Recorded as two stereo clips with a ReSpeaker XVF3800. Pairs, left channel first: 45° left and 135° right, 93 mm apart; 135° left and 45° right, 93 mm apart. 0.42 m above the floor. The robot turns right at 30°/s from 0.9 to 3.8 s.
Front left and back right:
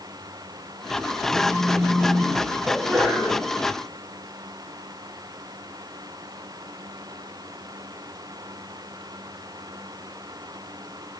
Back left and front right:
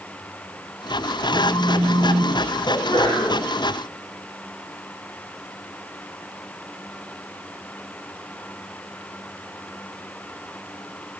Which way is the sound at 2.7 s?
130° left.